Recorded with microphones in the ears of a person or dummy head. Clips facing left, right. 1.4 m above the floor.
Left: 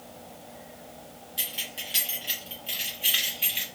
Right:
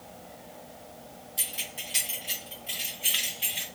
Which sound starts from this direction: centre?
Keys jangling, at 1.4 s.